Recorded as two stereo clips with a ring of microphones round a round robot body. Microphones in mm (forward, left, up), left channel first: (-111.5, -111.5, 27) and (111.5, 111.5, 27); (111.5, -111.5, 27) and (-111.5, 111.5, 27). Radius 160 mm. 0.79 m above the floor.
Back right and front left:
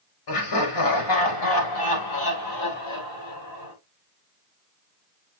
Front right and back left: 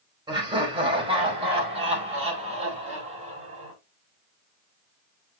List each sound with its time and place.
0.3 s laughter: 150° right, 4.5 m; by 3.7 s 155° right, 6.5 m